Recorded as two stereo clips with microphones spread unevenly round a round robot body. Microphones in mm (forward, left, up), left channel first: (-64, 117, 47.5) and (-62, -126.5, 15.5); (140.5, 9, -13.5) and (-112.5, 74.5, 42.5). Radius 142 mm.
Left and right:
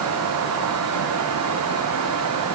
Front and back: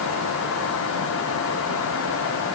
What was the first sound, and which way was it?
Only background noise.